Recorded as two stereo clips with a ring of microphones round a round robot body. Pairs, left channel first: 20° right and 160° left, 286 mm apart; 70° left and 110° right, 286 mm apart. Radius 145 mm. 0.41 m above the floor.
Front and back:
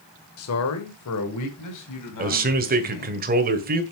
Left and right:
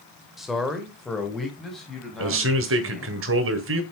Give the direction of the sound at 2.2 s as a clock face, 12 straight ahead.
5 o'clock.